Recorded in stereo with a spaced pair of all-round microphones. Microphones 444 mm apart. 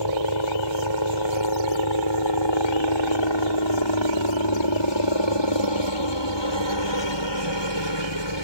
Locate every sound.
0.0 s a helicopter: 70° left (ahead or behind)